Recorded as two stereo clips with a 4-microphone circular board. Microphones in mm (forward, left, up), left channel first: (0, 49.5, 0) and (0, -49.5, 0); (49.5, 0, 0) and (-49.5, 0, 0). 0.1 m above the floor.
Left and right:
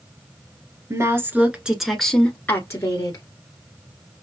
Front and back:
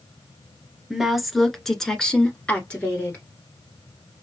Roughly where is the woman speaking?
Right.